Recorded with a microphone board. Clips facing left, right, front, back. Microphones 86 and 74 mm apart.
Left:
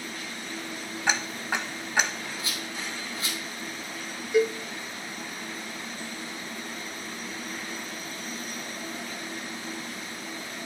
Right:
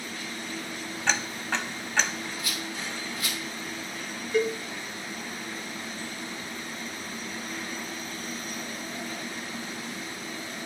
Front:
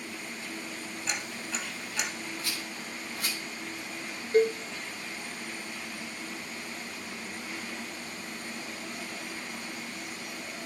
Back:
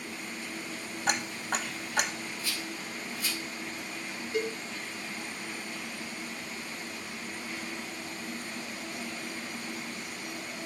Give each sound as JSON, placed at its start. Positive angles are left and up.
{"t": 1.1, "sound": "ticking", "azimuth_deg": 165, "distance_m": 0.7}
{"t": 2.4, "sound": "a rattle", "azimuth_deg": 25, "distance_m": 1.9}
{"t": 4.3, "sound": "a cowbell", "azimuth_deg": 15, "distance_m": 0.7}